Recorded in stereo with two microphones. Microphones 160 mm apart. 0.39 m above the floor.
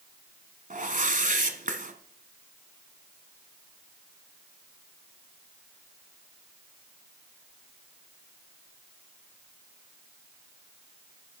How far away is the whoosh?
About 1.1 m.